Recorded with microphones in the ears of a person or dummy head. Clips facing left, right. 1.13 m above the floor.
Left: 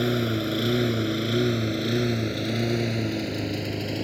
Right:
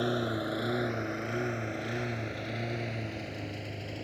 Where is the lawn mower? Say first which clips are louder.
Left 6 dB; 35° left (ahead or behind); by 4.0 s 75° left (ahead or behind).